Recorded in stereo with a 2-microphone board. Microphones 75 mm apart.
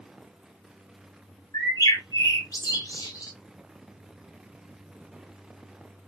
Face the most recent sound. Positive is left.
turn(degrees=55)  # may be behind; listen again after turning